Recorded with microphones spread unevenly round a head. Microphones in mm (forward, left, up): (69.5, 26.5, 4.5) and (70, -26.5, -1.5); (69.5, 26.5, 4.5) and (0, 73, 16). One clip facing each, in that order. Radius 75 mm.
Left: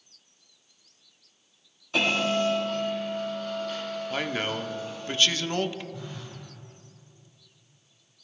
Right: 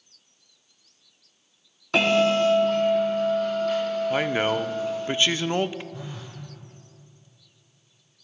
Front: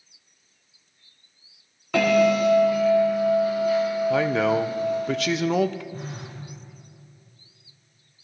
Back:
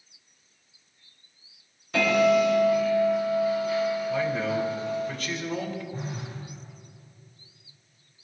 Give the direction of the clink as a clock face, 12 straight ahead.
I don't hear a clink.